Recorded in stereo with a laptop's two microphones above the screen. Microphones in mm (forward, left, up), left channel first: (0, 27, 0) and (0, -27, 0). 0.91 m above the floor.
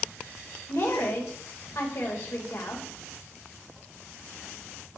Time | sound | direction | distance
0.7 | a woman speaking | 60° left (ahead or behind) | 3 m